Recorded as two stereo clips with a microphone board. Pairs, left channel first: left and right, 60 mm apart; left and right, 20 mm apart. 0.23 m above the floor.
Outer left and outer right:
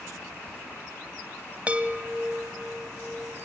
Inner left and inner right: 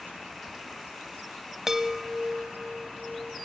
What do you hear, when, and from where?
1.7 s a chime: 20° right (ahead or behind), 1.1 m